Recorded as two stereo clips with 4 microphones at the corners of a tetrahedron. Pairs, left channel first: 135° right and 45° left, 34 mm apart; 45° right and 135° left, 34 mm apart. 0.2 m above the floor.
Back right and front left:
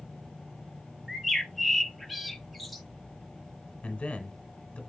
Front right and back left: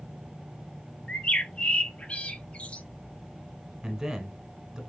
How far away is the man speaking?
About 1.4 m.